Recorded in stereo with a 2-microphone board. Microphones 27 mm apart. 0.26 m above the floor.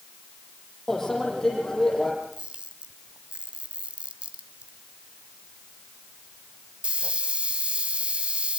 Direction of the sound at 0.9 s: 15° left (ahead or behind).